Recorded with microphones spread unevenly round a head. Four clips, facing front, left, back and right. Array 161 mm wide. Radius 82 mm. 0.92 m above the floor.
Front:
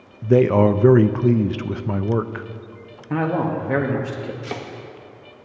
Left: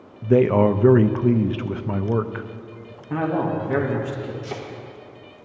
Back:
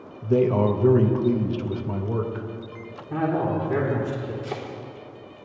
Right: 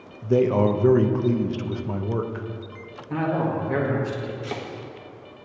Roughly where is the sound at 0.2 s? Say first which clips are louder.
Left 3 dB, front 5 dB; ahead left.